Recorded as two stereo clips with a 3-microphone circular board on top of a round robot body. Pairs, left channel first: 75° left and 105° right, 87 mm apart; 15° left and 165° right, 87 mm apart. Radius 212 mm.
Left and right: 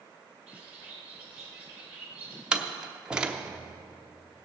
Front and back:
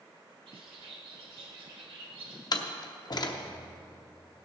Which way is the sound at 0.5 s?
Straight behind.